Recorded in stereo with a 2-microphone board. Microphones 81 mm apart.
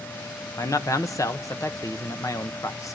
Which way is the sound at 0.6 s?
40° left (ahead or behind).